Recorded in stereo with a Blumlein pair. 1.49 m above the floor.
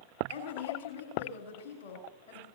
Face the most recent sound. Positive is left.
turn(degrees=50)